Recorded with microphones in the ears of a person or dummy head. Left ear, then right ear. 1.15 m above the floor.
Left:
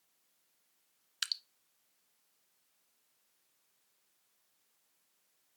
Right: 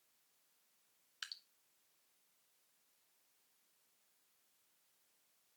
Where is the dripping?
30° left (ahead or behind), 0.6 m.